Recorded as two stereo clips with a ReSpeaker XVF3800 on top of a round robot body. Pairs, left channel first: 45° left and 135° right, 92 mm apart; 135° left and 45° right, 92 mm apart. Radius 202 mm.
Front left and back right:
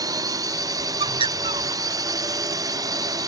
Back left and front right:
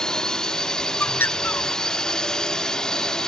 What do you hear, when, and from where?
0.0 s a drone: 145° right
1.0 s a bird: 155° right